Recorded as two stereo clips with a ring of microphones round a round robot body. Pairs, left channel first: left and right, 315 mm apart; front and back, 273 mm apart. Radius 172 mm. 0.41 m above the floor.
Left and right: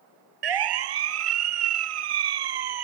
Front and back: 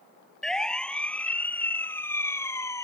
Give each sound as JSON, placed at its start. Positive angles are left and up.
{"t": 0.4, "sound": "a siren", "azimuth_deg": -90}